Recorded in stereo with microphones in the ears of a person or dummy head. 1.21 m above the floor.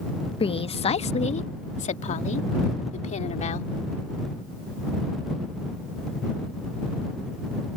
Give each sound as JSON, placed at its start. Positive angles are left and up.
{"t": 0.4, "sound": "a woman speaking", "side_deg": 25}